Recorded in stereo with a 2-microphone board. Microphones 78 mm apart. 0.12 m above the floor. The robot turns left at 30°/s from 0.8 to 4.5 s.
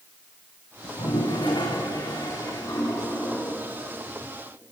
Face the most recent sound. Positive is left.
turn(degrees=-15)